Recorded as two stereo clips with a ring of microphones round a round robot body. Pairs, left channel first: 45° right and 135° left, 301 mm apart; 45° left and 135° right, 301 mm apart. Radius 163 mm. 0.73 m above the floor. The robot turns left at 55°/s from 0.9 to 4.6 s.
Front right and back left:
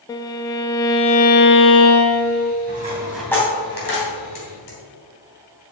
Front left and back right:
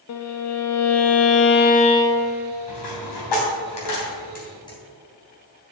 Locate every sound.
0.1 s a violin: 30° left, 1.0 m; by 2.5 s 60° right, 1.0 m
2.7 s a dropped coin: 75° left, 3 m; by 4.8 s 30° right, 3 m